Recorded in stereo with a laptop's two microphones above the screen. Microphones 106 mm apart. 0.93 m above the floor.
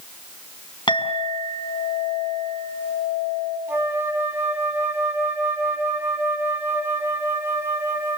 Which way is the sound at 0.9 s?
50° left (ahead or behind).